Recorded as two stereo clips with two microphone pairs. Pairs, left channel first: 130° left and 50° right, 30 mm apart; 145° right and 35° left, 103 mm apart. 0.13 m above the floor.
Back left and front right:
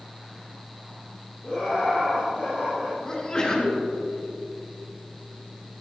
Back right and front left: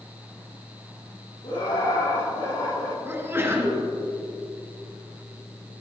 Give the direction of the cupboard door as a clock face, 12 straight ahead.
I don't hear a cupboard door.